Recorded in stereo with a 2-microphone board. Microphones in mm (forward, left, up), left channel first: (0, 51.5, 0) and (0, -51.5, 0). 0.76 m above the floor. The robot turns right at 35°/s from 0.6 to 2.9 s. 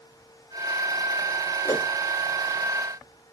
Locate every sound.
1.6 s a whoosh: 30° left (ahead or behind), 0.7 m; by 1.9 s 25° left (ahead or behind), 0.7 m